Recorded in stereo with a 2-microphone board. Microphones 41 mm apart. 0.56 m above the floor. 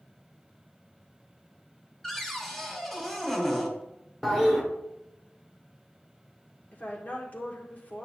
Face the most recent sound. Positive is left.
turn(degrees=40)  # may be behind; listen again after turning